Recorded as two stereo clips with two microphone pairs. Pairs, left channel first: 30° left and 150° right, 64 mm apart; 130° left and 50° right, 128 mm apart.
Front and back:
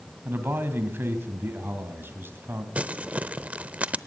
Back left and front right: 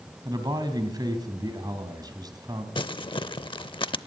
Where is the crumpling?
155° left, 0.7 m.